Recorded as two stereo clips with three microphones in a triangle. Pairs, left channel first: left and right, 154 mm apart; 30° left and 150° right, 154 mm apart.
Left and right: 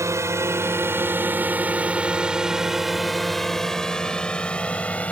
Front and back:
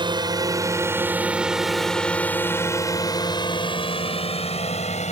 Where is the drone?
140° right; by 5.1 s 10° left.